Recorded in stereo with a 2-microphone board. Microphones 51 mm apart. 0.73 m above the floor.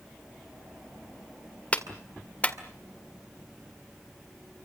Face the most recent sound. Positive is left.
turn(degrees=25)  # may be behind; listen again after turning